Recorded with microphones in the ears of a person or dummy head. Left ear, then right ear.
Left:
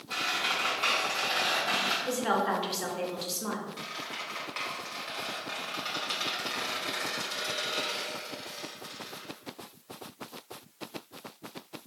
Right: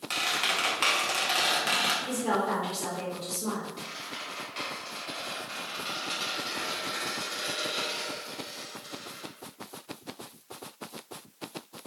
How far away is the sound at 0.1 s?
About 0.8 m.